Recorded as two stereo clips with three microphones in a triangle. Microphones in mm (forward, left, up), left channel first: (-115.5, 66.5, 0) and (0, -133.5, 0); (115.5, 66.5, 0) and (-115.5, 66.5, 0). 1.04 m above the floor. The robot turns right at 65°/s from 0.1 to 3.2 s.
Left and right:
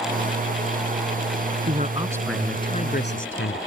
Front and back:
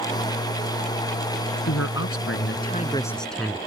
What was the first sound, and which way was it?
A man speaking, 10° right.